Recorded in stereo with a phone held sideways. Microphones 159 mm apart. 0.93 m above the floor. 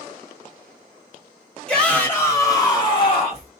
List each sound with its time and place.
1.7 s a shout: 5° left (ahead or behind), 1.5 m; by 3.5 s 40° left (ahead or behind), 1.4 m